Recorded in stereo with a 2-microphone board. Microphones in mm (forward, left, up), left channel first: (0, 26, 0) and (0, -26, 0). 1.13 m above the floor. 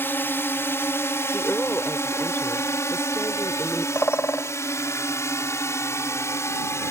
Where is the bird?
50° left (ahead or behind).